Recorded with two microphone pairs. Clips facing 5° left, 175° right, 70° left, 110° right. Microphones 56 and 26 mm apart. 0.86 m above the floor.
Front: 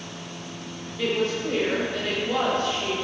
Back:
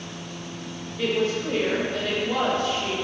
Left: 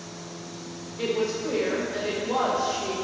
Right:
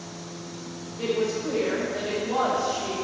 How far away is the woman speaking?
About 1.0 m.